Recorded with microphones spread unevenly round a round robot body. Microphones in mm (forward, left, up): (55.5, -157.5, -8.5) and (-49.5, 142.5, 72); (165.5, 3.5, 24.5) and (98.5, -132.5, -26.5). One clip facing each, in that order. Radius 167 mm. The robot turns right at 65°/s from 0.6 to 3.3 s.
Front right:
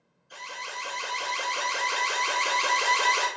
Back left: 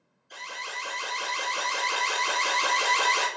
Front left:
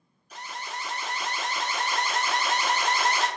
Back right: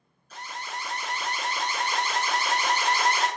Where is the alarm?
30° right, 1.7 m; by 3.3 s 145° left, 1.7 m.